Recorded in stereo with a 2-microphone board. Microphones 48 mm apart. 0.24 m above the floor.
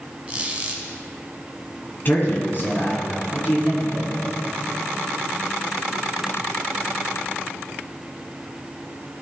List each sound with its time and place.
0.3 s a squeak: 25° right (ahead or behind), 1.2 m
2.0 s a man speaking: 40° left (ahead or behind), 2.5 m